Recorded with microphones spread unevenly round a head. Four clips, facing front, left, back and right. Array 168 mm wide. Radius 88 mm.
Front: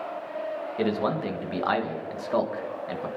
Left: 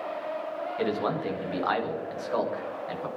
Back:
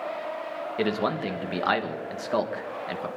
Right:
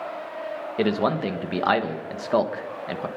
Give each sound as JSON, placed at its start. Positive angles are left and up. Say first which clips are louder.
{"t": 0.8, "sound": "a man speaking", "louder": "right 6 dB, even", "azimuth_deg": -110, "distance_m": 1.7}